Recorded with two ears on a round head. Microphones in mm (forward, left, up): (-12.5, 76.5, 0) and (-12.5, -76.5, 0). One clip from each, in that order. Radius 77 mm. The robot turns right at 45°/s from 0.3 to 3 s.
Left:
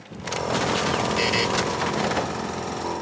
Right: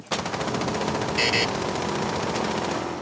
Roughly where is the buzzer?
Centre.